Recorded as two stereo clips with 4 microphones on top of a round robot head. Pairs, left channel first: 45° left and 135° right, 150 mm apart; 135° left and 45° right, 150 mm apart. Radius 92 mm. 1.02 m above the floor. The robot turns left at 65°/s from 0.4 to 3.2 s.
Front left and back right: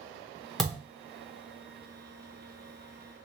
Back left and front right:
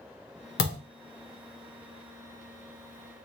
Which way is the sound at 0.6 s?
135° left.